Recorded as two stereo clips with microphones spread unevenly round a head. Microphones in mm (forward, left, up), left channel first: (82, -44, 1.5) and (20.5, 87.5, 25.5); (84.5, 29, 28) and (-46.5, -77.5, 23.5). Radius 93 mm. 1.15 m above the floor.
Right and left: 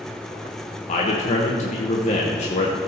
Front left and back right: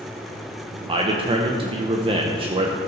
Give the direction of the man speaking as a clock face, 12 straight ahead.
3 o'clock.